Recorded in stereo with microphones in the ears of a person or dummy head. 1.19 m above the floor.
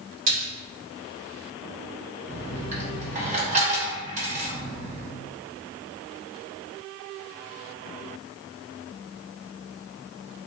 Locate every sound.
0.3 s a splash: 40° right (ahead or behind), 2.0 m
2.3 s a dropped coin: 40° right (ahead or behind), 0.9 m